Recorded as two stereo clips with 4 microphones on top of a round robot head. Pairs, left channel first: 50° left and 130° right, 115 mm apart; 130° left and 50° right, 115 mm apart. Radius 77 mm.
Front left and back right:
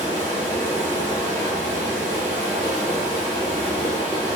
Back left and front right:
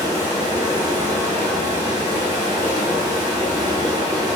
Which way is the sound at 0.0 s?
Straight ahead.